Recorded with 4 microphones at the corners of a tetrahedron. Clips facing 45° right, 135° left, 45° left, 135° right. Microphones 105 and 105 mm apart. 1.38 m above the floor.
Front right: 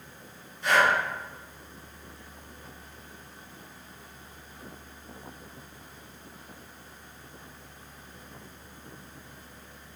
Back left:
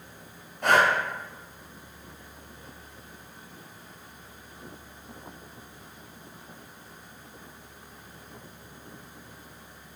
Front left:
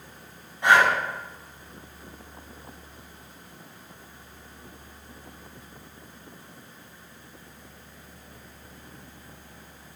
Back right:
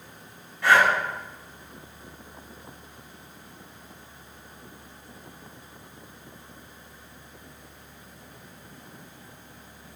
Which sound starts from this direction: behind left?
Breathing, at 0.6 s.